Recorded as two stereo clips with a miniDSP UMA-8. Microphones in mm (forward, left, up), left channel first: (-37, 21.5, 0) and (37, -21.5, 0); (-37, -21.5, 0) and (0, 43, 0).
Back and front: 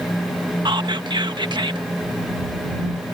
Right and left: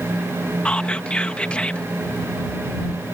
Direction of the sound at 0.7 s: 45° right.